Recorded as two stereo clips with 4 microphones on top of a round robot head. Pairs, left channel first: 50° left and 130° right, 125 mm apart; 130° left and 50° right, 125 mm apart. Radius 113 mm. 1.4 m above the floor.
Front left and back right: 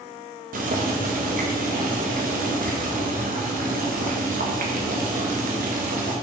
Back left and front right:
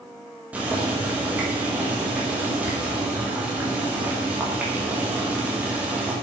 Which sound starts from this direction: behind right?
Boiling, at 0.5 s.